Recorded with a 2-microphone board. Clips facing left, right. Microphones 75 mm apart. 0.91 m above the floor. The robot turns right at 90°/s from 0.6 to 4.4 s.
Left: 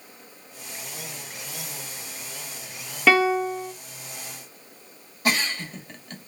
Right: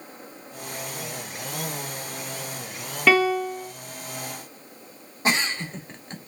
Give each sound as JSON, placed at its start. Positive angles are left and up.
{"t": 3.1, "sound": "a piano", "azimuth_deg": 5, "distance_m": 1.3}
{"t": 5.2, "sound": "a giggle", "side_deg": -25, "distance_m": 2.0}